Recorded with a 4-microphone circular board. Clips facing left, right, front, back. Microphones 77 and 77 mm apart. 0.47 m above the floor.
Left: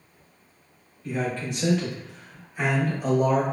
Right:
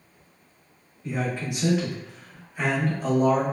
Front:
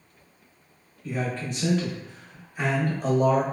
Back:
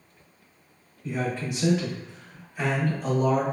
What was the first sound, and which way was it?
A man speaking, 140° right.